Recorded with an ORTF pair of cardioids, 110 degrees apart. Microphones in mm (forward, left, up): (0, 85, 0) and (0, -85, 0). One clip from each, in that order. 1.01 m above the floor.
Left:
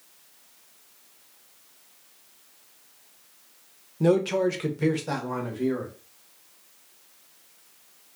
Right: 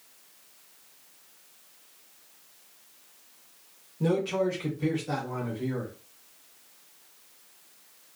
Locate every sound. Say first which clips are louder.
4.0 s a man speaking: left 5 dB; 25° left, 0.6 m; by 5.9 s 75° left, 1.3 m